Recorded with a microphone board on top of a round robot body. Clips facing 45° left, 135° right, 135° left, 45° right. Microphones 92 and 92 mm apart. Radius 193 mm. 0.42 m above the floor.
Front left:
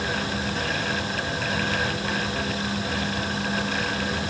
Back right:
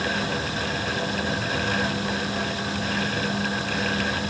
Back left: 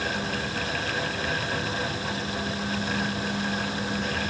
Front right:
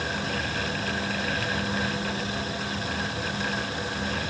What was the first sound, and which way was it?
Only background noise.